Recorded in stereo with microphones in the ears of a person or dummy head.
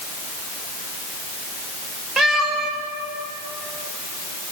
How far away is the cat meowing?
About 3 m.